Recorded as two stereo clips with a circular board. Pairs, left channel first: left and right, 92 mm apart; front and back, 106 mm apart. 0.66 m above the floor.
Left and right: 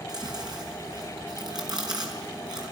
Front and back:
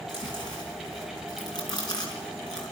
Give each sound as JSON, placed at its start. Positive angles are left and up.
{"t": 0.1, "sound": "chewing", "azimuth_deg": -50, "distance_m": 5.0}